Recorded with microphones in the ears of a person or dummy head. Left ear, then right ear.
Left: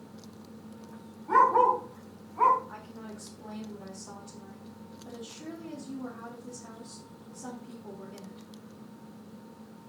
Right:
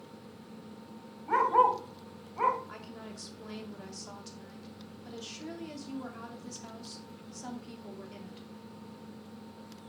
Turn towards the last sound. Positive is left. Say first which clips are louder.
# left 1 dB
turn(degrees=-75)  # may be behind; listen again after turning